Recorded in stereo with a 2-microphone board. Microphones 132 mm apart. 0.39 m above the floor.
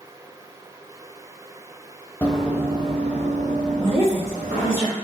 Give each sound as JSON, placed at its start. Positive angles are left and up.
{"t": 2.2, "sound": "running footsteps", "side_deg": 10, "distance_m": 0.5}
{"t": 3.8, "sound": "a woman speaking", "side_deg": -20, "distance_m": 1.0}